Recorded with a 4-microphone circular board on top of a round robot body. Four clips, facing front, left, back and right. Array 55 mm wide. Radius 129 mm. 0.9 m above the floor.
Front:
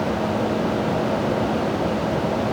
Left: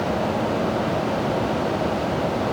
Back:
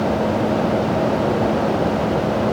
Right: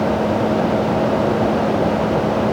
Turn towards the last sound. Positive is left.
No sound to turn to.